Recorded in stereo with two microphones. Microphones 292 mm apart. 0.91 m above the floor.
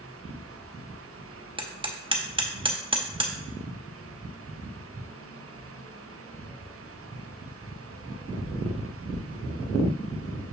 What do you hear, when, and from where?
1.6 s hammering: 15° right (ahead or behind), 0.8 m